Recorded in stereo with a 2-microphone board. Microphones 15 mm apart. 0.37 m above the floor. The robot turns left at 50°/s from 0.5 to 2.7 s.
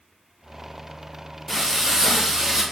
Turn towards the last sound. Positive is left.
turn(degrees=-85)